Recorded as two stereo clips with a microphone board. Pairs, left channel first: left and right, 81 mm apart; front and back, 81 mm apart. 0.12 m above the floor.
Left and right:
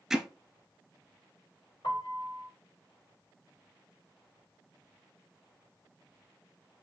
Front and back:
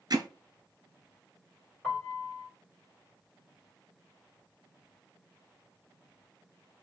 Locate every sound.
0.1 s hammering: 175° right, 0.7 m
1.8 s a piano: 75° left, 3 m